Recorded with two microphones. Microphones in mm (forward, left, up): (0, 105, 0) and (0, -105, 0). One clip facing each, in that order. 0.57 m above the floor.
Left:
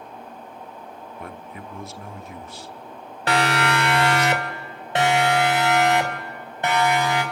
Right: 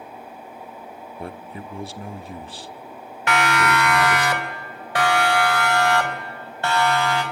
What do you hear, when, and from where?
1.2 s a man speaking: 35° right (ahead or behind), 0.9 m
3.3 s a siren: 35° left (ahead or behind), 2 m; by 7.2 s 15° left (ahead or behind), 4.5 m